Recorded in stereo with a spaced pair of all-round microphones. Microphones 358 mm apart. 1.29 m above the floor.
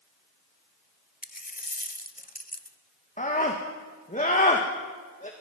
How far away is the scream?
About 1.6 m.